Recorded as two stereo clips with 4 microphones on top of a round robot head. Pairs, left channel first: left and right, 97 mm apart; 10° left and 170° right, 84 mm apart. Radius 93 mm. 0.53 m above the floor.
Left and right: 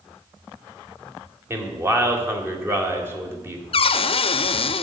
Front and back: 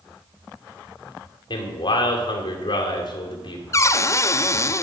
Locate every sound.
1.5 s a man speaking: 25° right, 2.5 m
3.7 s a cupboard door: 65° left, 0.7 m